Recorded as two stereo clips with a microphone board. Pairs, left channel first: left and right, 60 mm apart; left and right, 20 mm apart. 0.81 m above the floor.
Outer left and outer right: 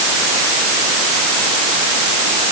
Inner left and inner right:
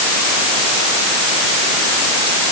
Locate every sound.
Only background noise.